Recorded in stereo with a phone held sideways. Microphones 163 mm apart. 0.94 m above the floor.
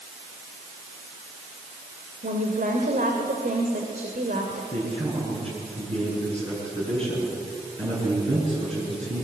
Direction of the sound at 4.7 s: 40° right (ahead or behind).